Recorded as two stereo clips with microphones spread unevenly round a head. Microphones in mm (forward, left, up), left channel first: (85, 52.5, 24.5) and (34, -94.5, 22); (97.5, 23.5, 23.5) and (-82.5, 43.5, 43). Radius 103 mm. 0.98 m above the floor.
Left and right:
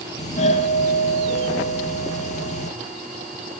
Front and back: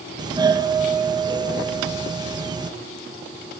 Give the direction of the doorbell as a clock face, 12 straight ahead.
8 o'clock.